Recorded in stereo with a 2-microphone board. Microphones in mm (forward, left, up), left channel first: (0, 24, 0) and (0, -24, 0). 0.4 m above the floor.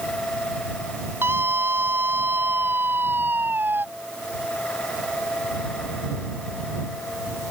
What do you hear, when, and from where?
1.2 s a scream: 50° right (ahead or behind); by 3.9 s 40° right (ahead or behind)